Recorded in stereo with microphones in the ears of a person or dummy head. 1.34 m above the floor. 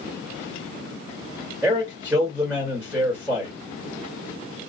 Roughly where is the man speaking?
Centre.